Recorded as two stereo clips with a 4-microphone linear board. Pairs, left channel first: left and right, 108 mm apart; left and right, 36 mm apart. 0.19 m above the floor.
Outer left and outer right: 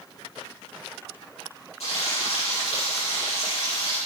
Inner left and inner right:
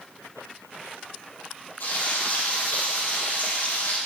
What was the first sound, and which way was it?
Frying, 70° left (ahead or behind).